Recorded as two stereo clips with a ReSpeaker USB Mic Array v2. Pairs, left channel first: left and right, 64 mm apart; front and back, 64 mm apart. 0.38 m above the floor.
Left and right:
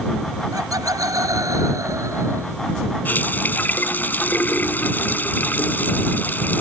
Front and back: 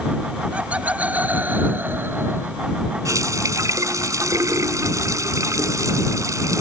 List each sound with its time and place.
0.5 s laughter: 110° right; by 2.6 s 130° right
3.0 s a running tap: 150° left